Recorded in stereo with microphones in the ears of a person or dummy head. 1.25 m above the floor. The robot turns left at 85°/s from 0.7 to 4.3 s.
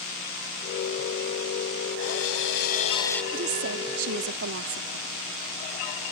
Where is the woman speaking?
40° right; by 5.1 s 125° right.